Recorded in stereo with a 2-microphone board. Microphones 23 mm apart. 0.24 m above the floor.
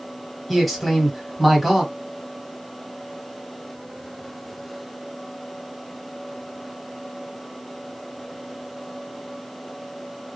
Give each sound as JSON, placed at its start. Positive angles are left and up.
{"t": 0.5, "sound": "a man speaking", "side_deg": 5, "distance_m": 1.2}